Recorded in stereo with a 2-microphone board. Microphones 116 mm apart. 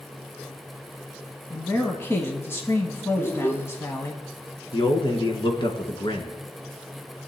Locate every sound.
1.5 s a man speaking: 25° left (ahead or behind), 1.3 m
3.2 s a child speaking: 25° left (ahead or behind), 2.0 m
4.7 s a man speaking: 50° left (ahead or behind), 1.6 m